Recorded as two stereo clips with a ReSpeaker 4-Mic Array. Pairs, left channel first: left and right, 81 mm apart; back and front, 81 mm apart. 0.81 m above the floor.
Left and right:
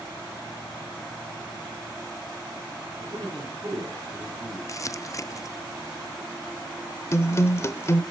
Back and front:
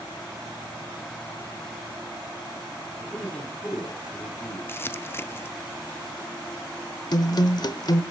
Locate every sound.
3.0 s a man speaking: 100° right, 7 m
4.7 s crumpling: 125° left, 0.5 m
7.1 s a guitar: 145° left, 0.9 m